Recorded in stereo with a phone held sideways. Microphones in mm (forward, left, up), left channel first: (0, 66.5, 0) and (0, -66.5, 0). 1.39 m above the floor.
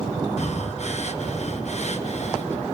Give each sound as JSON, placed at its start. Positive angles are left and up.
{"t": 0.4, "sound": "breathing", "side_deg": 60, "distance_m": 1.0}